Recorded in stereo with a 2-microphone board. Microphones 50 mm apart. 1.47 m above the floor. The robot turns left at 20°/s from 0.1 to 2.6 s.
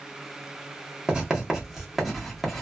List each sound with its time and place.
1.1 s writing: 15° right (ahead or behind), 1.0 m; by 2.6 s 5° left (ahead or behind), 1.0 m